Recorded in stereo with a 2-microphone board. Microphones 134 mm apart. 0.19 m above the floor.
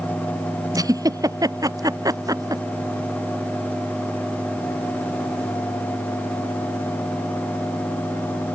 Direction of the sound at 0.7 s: 25° right (ahead or behind).